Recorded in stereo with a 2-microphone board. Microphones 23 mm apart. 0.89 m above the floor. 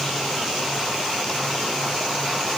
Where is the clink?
No clink in this recording.